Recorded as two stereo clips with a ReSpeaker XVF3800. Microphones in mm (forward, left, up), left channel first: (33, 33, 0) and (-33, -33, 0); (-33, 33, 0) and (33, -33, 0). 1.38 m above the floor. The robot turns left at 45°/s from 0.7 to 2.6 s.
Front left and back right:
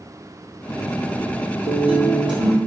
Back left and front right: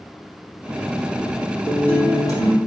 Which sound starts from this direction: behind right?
A guitar, at 1.7 s.